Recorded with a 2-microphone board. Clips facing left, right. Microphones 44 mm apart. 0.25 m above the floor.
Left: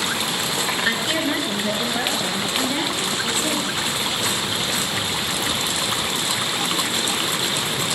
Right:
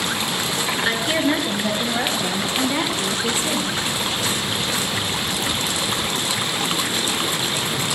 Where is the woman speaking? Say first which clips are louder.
Right 4 dB; 10° right (ahead or behind), 3.5 m; by 3.8 s 20° right (ahead or behind), 7 m.